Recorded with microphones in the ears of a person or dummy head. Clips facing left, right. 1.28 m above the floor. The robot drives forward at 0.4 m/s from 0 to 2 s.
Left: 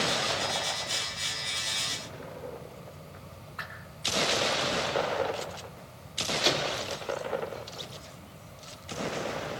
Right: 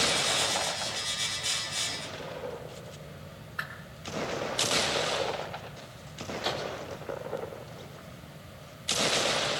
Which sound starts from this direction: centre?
A whoosh, at 3.6 s.